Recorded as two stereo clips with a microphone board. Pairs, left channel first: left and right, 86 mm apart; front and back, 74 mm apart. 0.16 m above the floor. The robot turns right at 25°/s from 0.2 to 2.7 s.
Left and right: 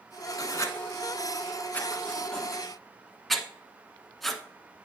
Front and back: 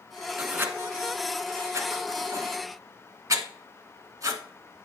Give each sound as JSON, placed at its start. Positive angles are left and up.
{"t": 0.4, "sound": "writing", "azimuth_deg": 120, "distance_m": 1.1}